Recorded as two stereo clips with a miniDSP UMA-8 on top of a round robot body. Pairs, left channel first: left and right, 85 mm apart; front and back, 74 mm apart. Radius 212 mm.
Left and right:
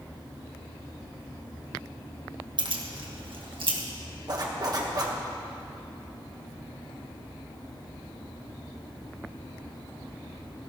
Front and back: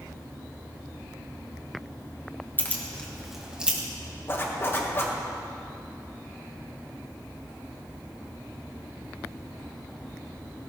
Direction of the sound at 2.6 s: 65° right.